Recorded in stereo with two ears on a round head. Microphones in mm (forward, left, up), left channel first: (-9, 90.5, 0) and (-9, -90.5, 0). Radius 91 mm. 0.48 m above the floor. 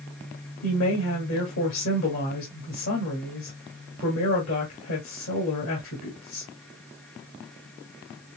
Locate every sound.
0.6 s a woman speaking: 70° left (ahead or behind), 2 m